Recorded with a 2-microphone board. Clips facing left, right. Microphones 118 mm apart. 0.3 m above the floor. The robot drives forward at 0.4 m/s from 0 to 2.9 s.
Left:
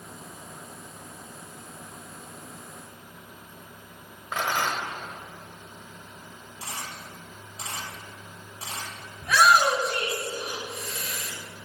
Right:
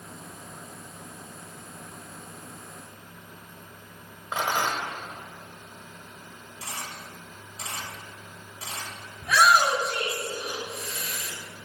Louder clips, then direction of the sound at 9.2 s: Left 1 dB; 5° right (ahead or behind).